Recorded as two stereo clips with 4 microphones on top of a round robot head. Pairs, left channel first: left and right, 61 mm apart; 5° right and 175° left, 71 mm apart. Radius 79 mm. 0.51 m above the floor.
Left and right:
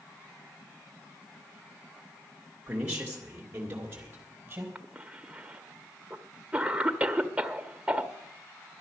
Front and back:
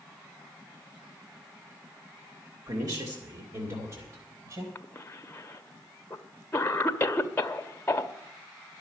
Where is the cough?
45° right, 1.0 m.